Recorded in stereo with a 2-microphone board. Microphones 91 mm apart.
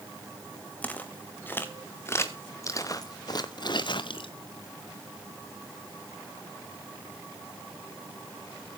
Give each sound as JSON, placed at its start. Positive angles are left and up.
{"t": 0.8, "sound": "footsteps", "side_deg": 15, "distance_m": 2.5}